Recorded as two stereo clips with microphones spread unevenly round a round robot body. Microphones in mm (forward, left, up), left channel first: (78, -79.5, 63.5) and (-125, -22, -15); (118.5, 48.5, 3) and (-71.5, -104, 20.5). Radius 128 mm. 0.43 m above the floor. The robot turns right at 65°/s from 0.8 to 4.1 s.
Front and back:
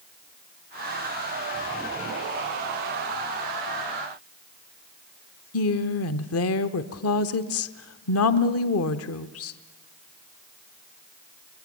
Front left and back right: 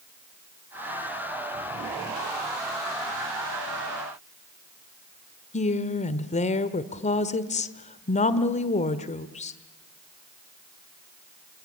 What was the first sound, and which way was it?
A woman speaking, 5° right.